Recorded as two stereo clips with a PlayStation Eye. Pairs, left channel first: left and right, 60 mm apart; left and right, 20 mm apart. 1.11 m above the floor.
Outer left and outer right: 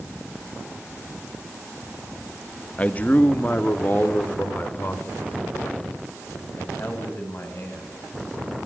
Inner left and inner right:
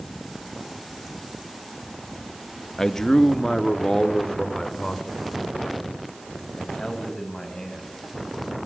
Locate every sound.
2.8 s a man speaking: 25° left (ahead or behind), 1.2 m; by 7.9 s 45° left (ahead or behind), 7.5 m